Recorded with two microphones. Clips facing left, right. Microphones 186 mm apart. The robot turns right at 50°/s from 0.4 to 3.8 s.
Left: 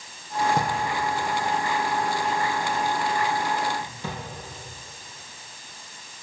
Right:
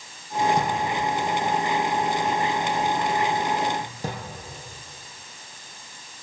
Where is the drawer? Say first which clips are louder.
Right 1 dB; 60° left (ahead or behind), 5.5 m; by 4.2 s 40° right (ahead or behind), 5.5 m.